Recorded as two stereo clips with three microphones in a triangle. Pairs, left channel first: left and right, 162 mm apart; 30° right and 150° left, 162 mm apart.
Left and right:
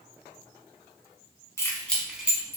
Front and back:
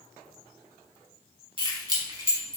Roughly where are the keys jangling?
Behind left.